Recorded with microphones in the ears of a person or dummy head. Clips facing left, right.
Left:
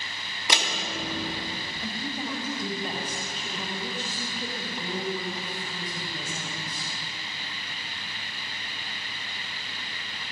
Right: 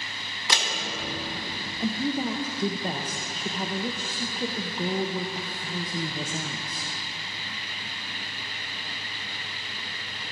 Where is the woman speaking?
40° right (ahead or behind), 0.6 m.